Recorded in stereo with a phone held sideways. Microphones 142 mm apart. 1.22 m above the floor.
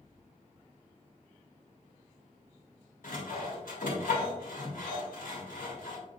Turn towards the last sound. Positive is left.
turn(degrees=75)  # may be behind; listen again after turning